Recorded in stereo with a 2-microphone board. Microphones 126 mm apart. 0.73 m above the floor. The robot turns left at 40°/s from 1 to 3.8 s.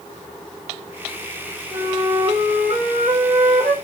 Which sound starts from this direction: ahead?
A flute, at 1.7 s.